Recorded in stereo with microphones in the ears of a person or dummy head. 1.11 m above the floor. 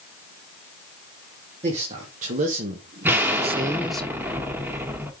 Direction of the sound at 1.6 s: 40° right (ahead or behind).